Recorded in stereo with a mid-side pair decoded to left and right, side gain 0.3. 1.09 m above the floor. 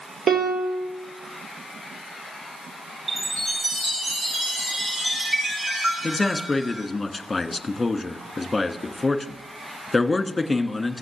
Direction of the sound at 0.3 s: 60° right.